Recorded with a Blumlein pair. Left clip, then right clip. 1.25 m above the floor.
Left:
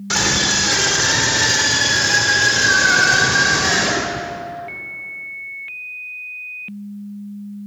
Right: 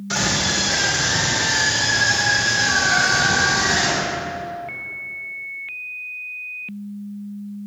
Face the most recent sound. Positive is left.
turn(degrees=50)